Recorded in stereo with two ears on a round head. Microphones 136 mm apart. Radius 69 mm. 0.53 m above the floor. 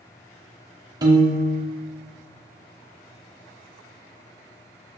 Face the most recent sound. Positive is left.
turn(degrees=-25)  # may be behind; listen again after turning